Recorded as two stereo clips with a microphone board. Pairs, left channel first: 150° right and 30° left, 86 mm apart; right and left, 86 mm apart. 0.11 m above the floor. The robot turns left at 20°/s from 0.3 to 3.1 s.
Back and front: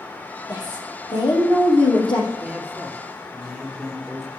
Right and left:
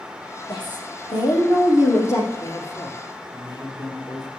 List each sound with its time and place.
0.5 s a woman speaking: 115° right, 4.5 m; by 2.3 s 150° right, 4.5 m
2.4 s a man speaking: 45° right, 2.5 m; by 4.3 s 60° right, 2.5 m